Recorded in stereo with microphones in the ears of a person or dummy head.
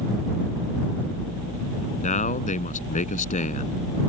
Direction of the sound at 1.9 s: 35° left (ahead or behind).